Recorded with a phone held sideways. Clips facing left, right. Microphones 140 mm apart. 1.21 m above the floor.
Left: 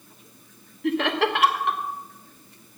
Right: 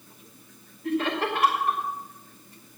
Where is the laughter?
85° left, 1.1 m.